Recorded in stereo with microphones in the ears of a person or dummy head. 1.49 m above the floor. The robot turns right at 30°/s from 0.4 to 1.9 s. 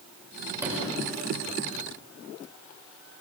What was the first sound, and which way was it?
A sliding door, 15° right (ahead or behind).